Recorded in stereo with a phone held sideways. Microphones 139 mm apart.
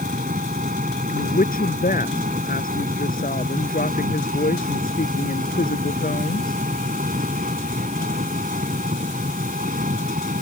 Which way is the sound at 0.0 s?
80° right.